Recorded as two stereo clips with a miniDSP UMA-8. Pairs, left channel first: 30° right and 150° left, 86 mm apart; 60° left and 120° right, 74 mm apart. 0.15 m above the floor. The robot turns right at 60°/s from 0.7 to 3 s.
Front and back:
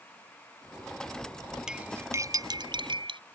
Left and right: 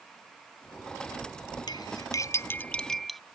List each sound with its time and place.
1.7 s cutlery clinking: 65° left; by 3.2 s 145° left